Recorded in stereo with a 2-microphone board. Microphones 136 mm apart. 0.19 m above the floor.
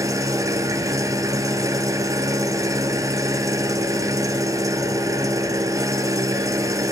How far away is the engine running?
About 1.1 m.